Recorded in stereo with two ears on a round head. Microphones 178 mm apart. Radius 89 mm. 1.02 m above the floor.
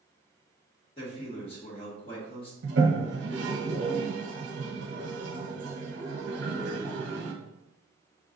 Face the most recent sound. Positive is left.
turn(degrees=-65)  # may be behind; listen again after turning